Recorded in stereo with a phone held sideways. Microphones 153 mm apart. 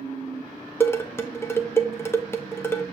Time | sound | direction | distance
0.8 | dishes clattering | 15° left (ahead or behind) | 0.7 m